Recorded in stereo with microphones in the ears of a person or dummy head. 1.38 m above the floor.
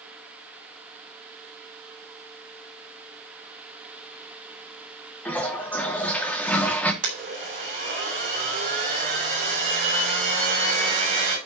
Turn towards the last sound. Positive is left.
turn(degrees=-45)  # may be behind; listen again after turning